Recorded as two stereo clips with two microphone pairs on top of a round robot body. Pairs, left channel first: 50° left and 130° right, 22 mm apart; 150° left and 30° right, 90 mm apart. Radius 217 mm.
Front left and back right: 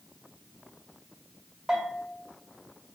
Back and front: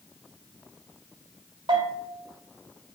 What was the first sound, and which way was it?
A bell, 55° right.